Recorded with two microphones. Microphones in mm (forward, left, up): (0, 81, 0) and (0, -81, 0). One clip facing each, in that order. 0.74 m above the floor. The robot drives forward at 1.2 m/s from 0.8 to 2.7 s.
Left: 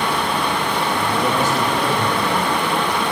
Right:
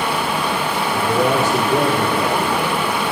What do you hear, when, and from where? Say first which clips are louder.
0.9 s a man speaking: right 5 dB; 70° right (ahead or behind), 3.5 m; by 3.0 s 65° right (ahead or behind), 3.5 m